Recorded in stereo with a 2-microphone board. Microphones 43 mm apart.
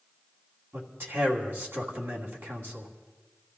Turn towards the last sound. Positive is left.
turn(degrees=-65)  # may be behind; listen again after turning